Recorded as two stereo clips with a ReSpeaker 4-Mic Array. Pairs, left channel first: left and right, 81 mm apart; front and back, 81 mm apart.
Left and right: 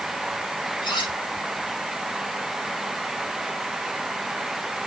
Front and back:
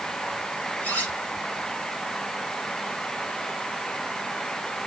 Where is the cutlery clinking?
70° left, 7 m.